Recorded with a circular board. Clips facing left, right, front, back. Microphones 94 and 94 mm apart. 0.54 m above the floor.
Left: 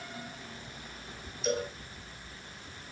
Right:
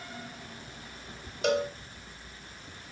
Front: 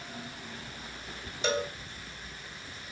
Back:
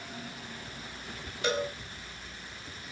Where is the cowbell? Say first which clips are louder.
Right 5 dB, even; 65° right, 3 m.